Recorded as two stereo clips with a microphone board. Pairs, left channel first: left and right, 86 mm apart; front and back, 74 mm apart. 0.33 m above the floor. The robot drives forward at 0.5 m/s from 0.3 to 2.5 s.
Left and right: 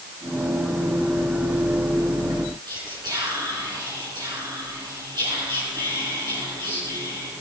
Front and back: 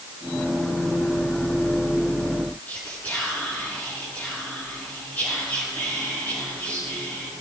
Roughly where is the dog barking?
I don't hear a dog barking.